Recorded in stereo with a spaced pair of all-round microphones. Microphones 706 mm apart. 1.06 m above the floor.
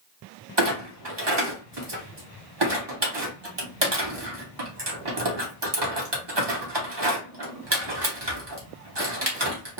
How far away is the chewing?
I don't hear chewing.